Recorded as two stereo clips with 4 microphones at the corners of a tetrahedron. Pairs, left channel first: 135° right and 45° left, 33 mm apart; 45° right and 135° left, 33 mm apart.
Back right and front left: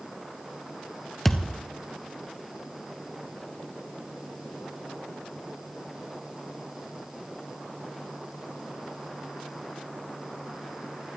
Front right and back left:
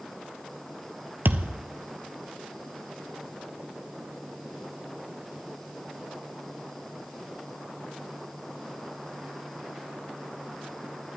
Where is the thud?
140° left, 0.7 m.